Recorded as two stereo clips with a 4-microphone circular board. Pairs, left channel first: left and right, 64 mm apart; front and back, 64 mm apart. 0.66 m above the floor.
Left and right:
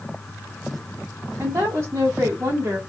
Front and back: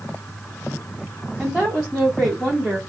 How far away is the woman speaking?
About 1.4 m.